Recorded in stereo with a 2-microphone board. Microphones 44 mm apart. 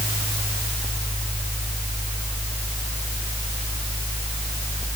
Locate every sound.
Only background noise.